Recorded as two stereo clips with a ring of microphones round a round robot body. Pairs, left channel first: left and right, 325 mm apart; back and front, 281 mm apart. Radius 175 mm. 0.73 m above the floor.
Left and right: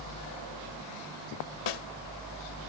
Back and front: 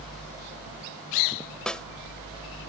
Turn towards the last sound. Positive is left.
turn(degrees=95)